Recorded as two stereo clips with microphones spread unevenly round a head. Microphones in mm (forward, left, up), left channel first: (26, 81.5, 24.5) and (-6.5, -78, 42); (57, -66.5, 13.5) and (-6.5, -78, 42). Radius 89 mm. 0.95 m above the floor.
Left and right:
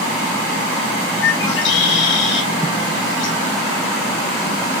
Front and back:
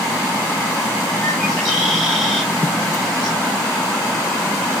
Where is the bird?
95° left, 4 m.